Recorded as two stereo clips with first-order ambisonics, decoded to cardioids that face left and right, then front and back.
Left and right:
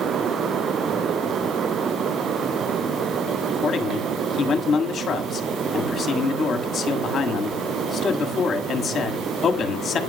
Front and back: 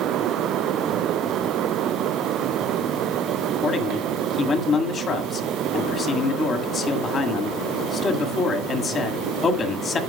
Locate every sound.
3.6 s a man speaking: 45° left, 1.5 m